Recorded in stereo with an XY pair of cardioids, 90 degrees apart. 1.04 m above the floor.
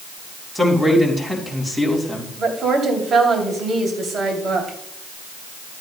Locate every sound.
0.6 s a man speaking: 5° right, 3.5 m
2.4 s a woman speaking: 60° right, 2.5 m